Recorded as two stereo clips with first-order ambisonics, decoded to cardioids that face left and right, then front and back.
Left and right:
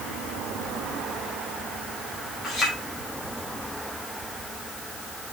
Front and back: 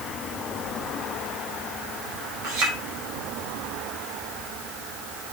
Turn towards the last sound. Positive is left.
turn(degrees=160)